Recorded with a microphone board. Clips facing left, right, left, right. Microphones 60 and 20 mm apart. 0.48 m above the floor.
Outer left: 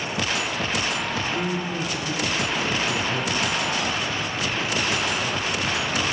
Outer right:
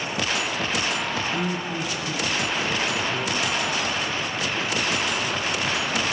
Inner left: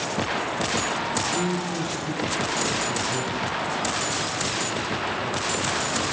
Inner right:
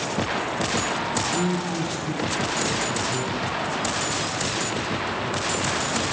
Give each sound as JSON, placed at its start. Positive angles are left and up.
{"t": 1.2, "sound": "a man speaking", "side_deg": 55, "distance_m": 3.0}